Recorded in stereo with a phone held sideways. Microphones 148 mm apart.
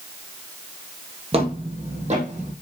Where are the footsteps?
40° right (ahead or behind), 2 m; by 2.5 s 50° right (ahead or behind), 3.5 m.